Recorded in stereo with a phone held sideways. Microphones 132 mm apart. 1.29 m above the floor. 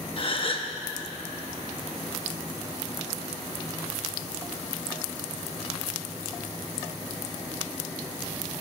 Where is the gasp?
40° left (ahead or behind), 0.8 m.